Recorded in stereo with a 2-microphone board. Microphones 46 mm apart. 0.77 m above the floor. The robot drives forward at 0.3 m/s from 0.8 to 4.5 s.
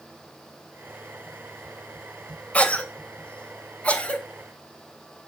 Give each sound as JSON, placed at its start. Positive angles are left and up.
{"t": 2.5, "sound": "a cough", "side_deg": 30, "distance_m": 3.0}